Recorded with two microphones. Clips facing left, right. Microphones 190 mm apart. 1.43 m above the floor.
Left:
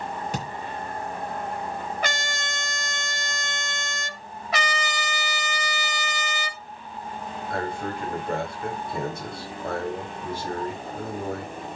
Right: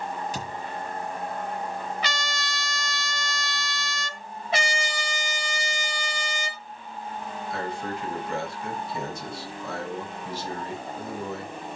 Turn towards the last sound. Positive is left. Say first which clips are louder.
# left 3 dB
turn(degrees=60)  # may be behind; listen again after turning